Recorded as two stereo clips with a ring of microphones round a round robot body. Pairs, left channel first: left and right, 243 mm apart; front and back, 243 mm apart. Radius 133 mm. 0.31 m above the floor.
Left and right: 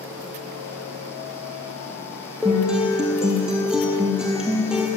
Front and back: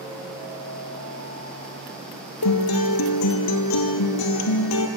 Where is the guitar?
5° right, 1.4 m.